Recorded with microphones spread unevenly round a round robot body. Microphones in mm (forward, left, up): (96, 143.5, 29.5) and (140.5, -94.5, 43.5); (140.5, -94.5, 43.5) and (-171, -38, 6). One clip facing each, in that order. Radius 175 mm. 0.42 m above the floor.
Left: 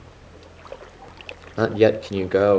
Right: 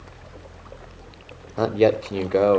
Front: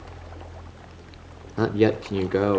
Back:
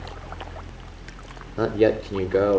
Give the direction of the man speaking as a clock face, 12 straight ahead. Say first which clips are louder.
Left 1 dB, back 1 dB; 10 o'clock.